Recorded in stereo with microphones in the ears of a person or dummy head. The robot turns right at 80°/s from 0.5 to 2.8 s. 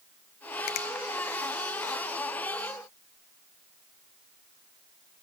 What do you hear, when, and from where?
0.7 s a finger snap: 60° left (ahead or behind), 0.7 m; by 0.9 s 50° left (ahead or behind), 0.7 m